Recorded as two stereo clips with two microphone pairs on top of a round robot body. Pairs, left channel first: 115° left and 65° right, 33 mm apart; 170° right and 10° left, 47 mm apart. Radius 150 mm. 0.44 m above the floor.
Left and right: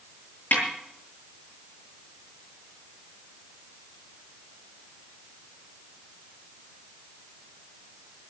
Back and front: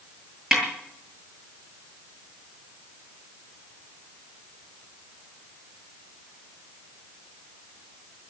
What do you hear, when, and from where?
0.5 s a snare drum: 95° left, 8.5 m